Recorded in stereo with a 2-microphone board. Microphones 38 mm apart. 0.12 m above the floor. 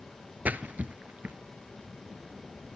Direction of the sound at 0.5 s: 50° right (ahead or behind).